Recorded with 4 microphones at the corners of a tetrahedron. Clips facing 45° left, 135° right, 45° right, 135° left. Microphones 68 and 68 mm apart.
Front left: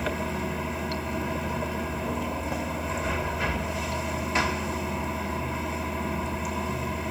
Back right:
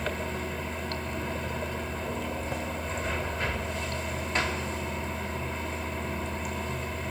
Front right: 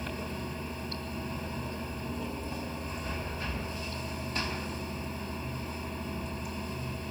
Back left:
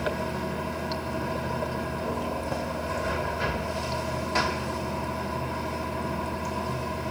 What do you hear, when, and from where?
0.0 s running water: 130° left, 2.0 m